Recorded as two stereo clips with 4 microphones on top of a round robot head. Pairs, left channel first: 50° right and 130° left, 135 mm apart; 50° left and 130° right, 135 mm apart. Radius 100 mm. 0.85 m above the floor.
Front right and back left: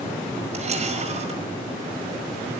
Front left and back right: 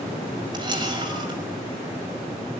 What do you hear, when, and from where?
0.5 s a camera shutter: 170° left, 5.5 m